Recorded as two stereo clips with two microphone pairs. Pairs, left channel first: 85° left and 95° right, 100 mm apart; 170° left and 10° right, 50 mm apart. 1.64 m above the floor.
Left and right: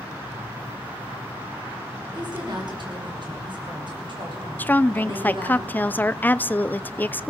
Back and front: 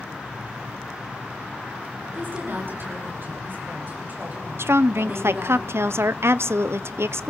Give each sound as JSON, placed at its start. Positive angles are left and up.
{"t": 2.1, "sound": "a woman speaking", "azimuth_deg": -55, "distance_m": 6.0}
{"t": 4.6, "sound": "a woman speaking", "azimuth_deg": 15, "distance_m": 0.7}